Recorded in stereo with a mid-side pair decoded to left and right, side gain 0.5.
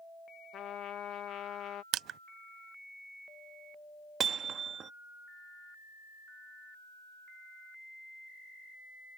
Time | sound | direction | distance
0.5 | a trumpet | 60° left | ?
1.9 | crushing | 65° right | ?
4.2 | hammering | 50° right | ?